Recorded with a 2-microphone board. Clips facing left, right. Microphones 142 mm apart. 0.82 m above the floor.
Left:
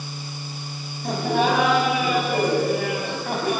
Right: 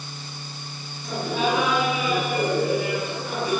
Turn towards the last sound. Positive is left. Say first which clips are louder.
# left 4 dB
turn(degrees=60)  # may be behind; listen again after turning